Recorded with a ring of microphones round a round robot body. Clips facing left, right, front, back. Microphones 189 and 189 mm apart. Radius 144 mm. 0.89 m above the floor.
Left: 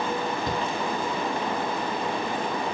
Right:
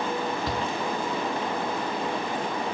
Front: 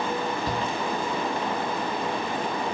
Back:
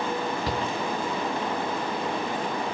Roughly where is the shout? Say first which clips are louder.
Left 1 dB, even; behind.